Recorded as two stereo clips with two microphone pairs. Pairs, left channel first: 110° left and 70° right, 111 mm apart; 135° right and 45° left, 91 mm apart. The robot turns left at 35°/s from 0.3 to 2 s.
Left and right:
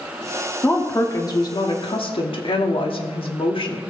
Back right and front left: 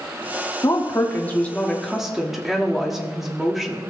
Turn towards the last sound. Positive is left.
turn(degrees=130)